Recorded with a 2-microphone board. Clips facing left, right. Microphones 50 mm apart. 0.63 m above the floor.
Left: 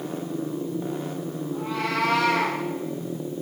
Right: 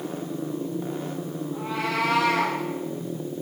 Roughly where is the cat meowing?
Centre.